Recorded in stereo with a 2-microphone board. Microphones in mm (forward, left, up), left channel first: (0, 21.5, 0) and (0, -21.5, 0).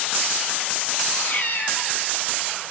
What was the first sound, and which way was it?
A cat meowing, 45° left (ahead or behind).